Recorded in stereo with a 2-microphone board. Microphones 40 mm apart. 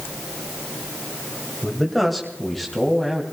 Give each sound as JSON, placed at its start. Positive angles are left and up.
{"t": 1.6, "sound": "a man speaking", "side_deg": 5, "distance_m": 2.0}